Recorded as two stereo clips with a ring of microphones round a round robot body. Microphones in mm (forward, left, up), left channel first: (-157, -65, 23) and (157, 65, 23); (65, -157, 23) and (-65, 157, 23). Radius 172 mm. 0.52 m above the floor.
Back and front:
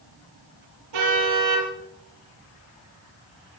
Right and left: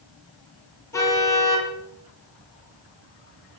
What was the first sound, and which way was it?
A car horn, 15° left.